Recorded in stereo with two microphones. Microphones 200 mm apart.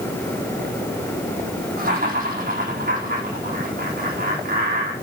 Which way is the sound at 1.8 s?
45° right (ahead or behind).